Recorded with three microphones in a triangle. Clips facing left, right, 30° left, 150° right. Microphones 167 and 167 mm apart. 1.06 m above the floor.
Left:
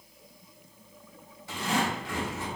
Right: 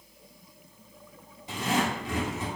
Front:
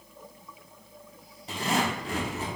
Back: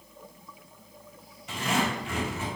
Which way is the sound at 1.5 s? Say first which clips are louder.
Right 1 dB, even; 20° right.